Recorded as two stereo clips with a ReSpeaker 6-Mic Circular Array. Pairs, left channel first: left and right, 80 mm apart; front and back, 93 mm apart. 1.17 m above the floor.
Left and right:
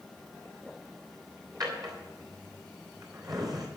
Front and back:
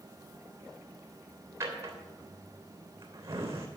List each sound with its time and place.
1.6 s a drawer: 125° right, 3 m